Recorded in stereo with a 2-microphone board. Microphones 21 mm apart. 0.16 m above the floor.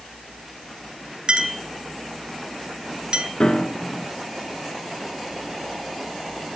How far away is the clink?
About 1.3 m.